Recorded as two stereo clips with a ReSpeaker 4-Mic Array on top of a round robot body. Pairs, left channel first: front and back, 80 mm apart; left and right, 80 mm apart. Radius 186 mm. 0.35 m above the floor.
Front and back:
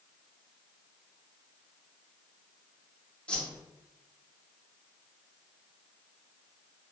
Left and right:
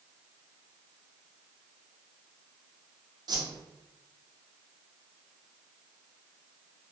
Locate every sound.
3.3 s a whoosh: 75° right, 0.9 m